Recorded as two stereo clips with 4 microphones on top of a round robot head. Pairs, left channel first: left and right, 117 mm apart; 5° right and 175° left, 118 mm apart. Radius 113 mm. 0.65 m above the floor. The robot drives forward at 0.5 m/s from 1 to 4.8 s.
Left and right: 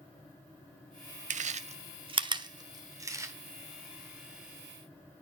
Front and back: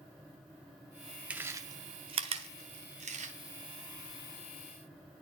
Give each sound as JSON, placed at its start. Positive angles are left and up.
{"t": 1.3, "sound": "chewing", "azimuth_deg": -100, "distance_m": 0.5}